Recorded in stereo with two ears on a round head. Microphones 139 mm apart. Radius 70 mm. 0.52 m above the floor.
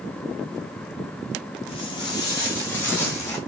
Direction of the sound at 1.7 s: 35° left (ahead or behind).